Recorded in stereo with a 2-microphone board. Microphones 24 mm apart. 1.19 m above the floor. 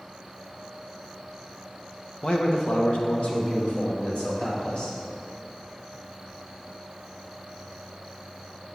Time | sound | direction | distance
2.2 | a man speaking | 40° left (ahead or behind) | 1.2 m